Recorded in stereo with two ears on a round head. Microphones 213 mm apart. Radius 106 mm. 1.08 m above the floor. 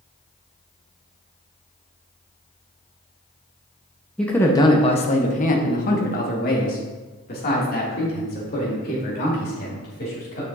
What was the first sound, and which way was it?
A man speaking, 5° left (ahead or behind).